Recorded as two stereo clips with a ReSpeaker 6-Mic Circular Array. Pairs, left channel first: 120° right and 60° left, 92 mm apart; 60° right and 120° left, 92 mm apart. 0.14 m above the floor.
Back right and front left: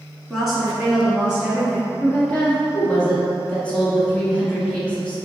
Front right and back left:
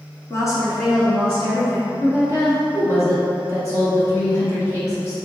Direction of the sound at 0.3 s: 35° right.